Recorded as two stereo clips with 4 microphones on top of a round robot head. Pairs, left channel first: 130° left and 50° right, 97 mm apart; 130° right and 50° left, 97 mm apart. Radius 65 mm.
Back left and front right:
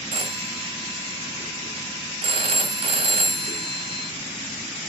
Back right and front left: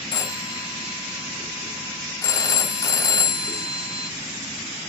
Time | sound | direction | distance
0.1 | a phone ringing | 75° right | 2.5 m